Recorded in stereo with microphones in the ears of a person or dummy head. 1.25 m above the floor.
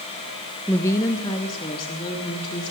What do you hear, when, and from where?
0.7 s a woman speaking: 10° left (ahead or behind), 0.8 m; by 2.7 s 30° left (ahead or behind), 3.5 m